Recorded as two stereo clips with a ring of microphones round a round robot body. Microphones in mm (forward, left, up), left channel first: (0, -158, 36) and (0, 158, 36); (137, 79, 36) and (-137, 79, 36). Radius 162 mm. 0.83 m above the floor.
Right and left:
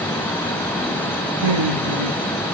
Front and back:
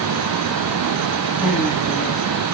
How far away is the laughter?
About 7.5 m.